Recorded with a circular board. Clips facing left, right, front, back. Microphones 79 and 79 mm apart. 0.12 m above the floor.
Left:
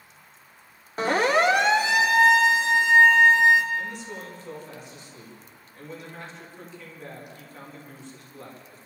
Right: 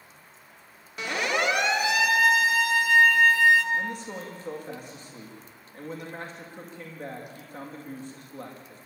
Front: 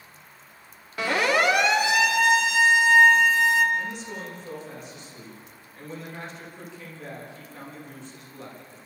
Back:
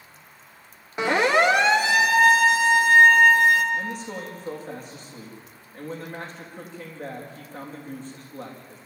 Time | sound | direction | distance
1.0 | a siren | 120° left | 2.5 m
3.7 | a man speaking | 130° right | 8 m